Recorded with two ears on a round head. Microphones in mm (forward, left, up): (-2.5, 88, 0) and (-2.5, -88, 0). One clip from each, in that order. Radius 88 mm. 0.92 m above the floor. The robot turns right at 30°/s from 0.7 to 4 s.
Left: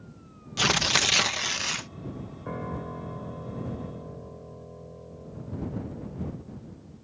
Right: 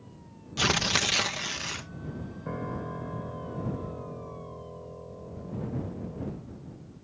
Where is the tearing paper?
20° left; by 1.9 s 55° left.